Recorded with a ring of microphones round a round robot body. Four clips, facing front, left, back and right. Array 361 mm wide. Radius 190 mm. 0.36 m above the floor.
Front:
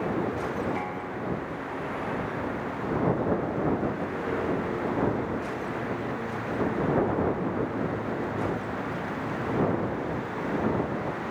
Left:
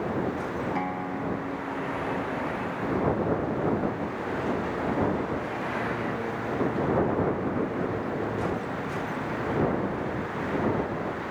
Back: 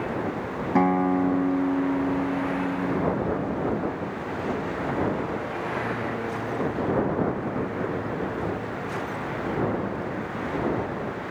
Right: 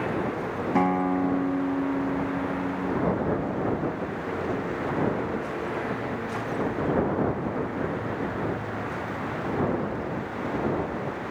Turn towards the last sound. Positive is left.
turn(degrees=-155)